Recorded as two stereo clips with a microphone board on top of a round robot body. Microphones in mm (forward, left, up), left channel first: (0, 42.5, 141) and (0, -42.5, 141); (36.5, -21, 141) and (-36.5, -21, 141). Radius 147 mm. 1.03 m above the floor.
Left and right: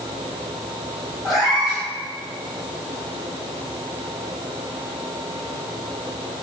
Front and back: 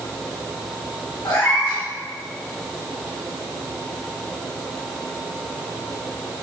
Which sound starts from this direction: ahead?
A cat meowing, at 1.2 s.